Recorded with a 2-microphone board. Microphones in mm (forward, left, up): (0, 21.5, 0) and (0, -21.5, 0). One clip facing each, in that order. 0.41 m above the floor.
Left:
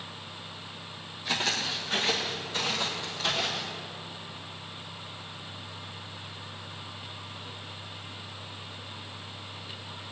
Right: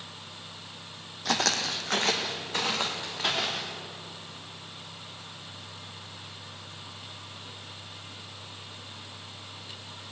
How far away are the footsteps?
About 1.1 m.